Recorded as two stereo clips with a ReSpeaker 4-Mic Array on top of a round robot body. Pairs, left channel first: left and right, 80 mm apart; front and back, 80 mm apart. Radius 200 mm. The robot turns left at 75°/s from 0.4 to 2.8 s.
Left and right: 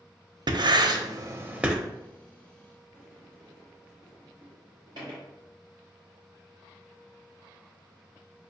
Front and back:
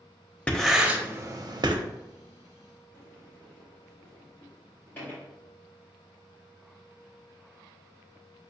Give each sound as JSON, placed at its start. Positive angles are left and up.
{"t": 0.5, "sound": "writing", "azimuth_deg": -75, "distance_m": 0.7}
{"t": 2.9, "sound": "a sliding door", "azimuth_deg": -70, "distance_m": 0.6}